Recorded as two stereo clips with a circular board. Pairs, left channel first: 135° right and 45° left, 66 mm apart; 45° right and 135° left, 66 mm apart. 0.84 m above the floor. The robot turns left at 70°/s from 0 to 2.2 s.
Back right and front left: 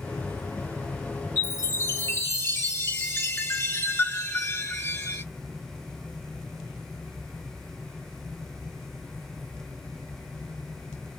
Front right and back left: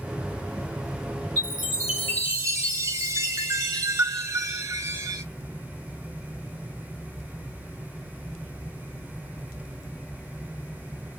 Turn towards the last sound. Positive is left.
turn(degrees=175)